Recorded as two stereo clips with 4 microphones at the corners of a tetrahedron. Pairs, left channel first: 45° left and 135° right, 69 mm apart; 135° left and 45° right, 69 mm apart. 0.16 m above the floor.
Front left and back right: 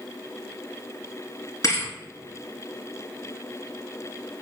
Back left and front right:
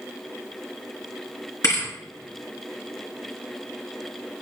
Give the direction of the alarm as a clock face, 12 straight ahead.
I don't hear an alarm.